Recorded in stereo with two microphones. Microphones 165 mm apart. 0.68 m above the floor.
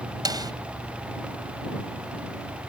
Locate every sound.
0.2 s a snare drum: 25° right (ahead or behind)